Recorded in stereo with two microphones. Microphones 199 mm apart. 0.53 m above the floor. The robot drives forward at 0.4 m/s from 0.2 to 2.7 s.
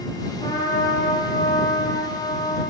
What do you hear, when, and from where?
0.4 s a trumpet: 25° left (ahead or behind), 10 m